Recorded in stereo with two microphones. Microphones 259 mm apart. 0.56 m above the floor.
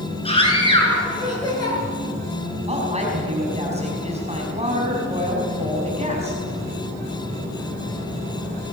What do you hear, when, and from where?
0.2 s a scream: 20° left (ahead or behind), 8 m; by 1.8 s 15° left (ahead or behind), 9 m
2.7 s a woman speaking: 25° right (ahead or behind), 4.5 m